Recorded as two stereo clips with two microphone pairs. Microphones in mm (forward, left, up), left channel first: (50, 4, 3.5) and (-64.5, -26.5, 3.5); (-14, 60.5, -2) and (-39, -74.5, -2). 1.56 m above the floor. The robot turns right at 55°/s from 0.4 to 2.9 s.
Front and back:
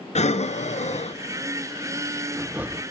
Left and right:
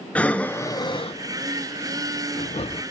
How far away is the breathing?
About 0.7 m.